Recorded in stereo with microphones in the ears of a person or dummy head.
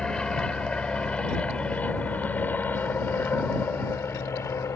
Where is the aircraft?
Centre (ahead or behind); by 4.8 s 15° left (ahead or behind).